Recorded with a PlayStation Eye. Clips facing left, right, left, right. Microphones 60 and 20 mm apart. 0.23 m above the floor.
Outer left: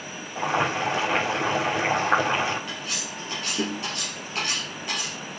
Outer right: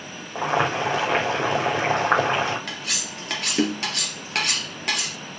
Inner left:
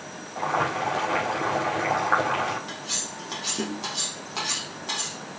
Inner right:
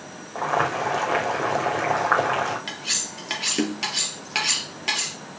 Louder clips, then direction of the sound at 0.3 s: Outer right 2 dB, inner right 2 dB; 50° right (ahead or behind).